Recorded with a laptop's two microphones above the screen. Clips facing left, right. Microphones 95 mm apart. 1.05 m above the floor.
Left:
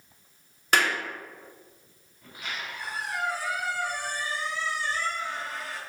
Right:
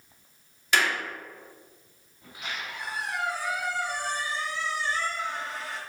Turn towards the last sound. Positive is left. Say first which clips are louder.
# even
turn(degrees=-20)  # may be behind; listen again after turning